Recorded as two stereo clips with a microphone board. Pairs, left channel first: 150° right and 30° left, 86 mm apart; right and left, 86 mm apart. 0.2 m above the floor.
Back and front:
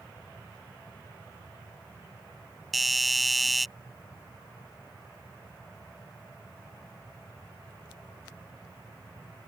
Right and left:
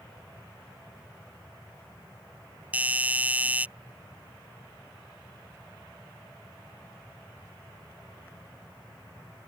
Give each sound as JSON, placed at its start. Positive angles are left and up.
{"t": 2.7, "sound": "a doorbell", "azimuth_deg": 120}